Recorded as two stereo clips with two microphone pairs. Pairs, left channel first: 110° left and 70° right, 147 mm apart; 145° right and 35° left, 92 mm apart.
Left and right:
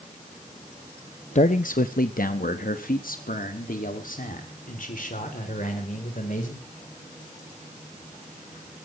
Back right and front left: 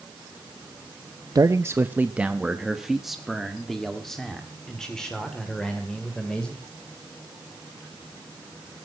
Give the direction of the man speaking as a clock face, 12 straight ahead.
9 o'clock.